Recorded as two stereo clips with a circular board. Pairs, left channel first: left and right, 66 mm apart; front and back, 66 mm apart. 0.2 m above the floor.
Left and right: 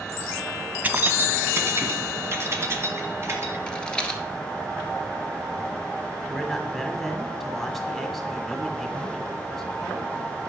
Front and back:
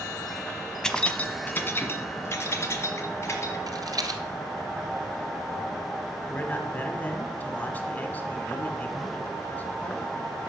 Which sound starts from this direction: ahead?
A man speaking, at 6.3 s.